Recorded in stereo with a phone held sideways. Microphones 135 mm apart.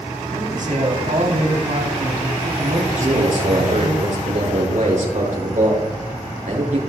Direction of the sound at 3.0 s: 70° right (ahead or behind).